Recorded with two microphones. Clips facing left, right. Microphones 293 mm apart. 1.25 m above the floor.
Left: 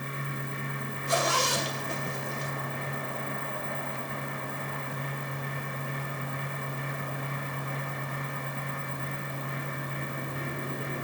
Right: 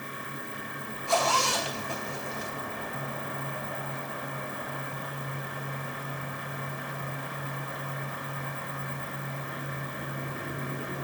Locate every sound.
1.1 s a zipper: 20° left (ahead or behind), 4 m